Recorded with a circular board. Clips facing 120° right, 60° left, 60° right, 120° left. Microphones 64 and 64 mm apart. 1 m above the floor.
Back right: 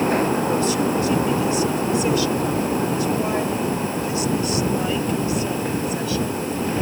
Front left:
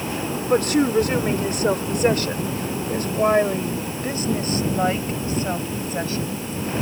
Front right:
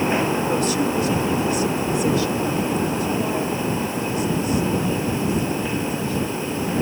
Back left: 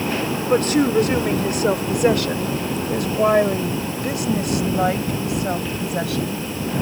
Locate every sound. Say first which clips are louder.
0.5 s a woman speaking: front left 2 dB, back left 4 dB; 85° left; by 6.5 s 110° left